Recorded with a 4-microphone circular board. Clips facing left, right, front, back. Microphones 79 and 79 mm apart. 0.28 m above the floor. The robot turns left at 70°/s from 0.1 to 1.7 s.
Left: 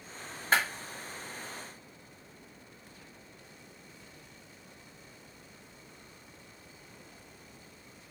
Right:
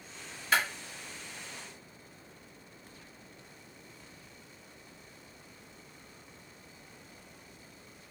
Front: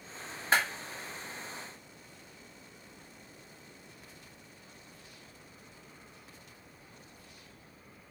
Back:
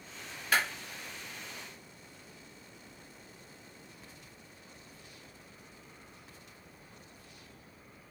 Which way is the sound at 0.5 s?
50° left.